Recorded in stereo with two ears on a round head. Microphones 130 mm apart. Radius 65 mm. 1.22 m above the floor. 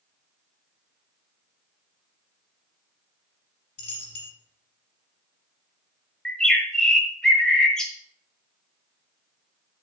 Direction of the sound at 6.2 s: 5° left (ahead or behind).